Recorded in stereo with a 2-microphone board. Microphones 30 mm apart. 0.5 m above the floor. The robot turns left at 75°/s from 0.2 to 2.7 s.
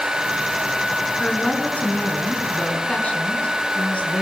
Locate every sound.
1.2 s a woman speaking: 165° left, 5 m; by 4.2 s 55° left, 5 m